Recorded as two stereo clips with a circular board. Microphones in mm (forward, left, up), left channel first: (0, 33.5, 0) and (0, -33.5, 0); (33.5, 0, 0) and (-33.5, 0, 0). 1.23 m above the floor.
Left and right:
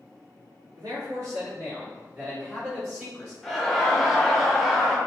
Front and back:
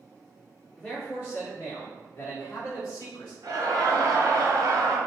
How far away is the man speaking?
About 0.6 m.